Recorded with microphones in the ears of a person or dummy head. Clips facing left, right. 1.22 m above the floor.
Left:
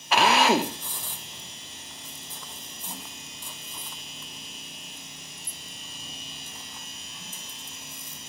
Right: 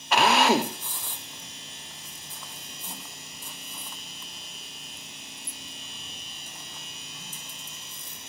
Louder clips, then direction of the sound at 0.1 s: Even; centre (ahead or behind).